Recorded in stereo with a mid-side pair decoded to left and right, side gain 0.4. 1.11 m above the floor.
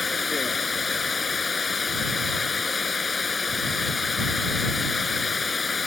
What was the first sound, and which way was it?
Running water, 35° left.